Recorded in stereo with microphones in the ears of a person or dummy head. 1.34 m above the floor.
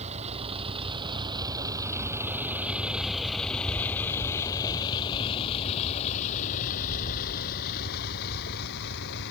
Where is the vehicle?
35° right (ahead or behind); by 9.3 s 60° left (ahead or behind).